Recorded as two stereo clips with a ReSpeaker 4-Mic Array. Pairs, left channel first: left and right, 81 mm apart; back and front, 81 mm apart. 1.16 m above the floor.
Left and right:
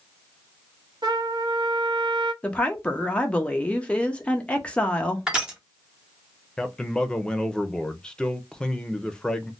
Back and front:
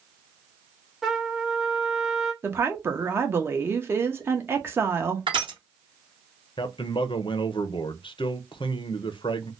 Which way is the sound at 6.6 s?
170° left.